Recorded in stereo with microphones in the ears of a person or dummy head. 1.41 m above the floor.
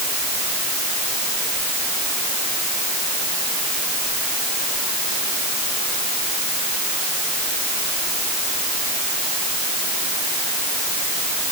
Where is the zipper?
No zipper in this recording.